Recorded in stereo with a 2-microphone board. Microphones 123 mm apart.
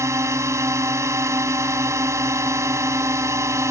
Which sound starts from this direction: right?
A drone, at 0.0 s.